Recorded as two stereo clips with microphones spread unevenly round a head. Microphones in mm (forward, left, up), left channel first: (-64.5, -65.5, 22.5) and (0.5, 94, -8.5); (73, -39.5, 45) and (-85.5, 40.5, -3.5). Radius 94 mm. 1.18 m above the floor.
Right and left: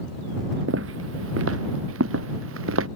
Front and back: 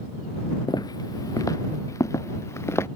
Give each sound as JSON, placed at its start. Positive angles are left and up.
{"t": 0.7, "sound": "footsteps", "azimuth_deg": 40}